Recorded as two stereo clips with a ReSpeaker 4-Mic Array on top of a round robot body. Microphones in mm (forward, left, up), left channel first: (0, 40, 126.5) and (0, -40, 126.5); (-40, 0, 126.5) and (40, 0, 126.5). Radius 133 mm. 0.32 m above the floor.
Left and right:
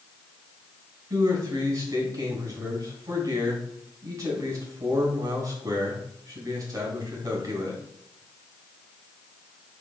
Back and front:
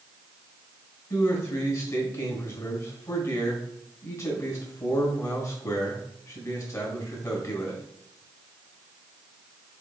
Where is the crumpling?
No crumpling in this recording.